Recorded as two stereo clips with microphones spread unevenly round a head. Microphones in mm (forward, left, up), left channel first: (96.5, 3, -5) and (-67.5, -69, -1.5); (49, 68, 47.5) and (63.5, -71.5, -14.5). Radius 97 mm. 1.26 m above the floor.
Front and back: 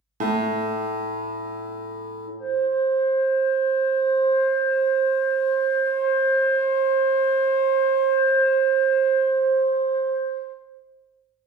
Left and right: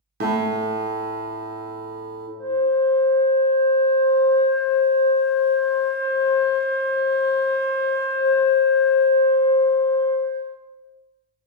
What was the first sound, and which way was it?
A guitar, 105° right.